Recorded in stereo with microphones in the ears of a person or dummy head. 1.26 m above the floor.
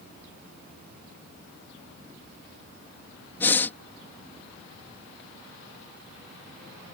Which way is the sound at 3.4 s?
10° left (ahead or behind).